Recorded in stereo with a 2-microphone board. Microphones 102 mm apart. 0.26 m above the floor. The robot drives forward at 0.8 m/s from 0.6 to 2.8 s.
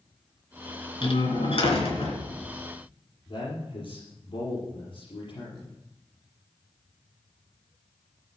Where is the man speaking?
65° left (ahead or behind), 5 m.